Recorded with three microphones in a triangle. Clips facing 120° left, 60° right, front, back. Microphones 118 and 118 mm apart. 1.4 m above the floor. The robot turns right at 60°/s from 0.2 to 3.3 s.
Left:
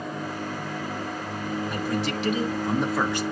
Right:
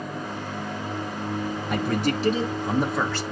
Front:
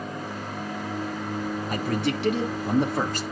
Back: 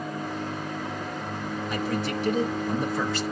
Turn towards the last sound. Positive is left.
turn(degrees=55)